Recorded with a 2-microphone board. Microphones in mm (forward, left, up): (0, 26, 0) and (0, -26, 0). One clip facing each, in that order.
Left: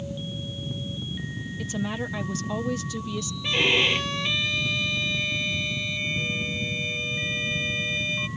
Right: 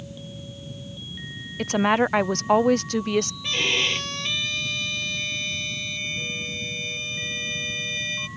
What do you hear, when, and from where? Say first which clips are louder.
1.6 s a woman speaking: right 11 dB; 70° right (ahead or behind)
3.4 s a violin: left 2 dB; 10° left (ahead or behind)